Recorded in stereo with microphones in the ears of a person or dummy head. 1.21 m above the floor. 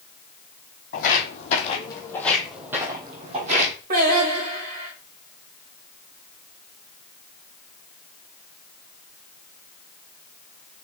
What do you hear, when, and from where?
0.9 s footsteps: 50° left (ahead or behind), 2.5 m; by 3.7 s 40° right (ahead or behind), 2.5 m
3.9 s singing: 45° right (ahead or behind), 2.5 m